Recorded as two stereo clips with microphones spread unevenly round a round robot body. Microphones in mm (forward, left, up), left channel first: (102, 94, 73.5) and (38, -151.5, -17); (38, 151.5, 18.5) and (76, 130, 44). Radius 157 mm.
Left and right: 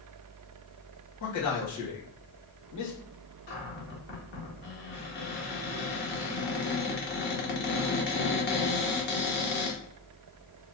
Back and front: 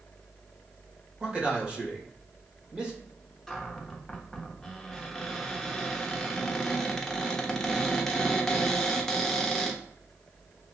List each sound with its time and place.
1.2 s a man speaking: 50° left, 1.7 m
3.5 s a cupboard door: 50° left, 0.9 m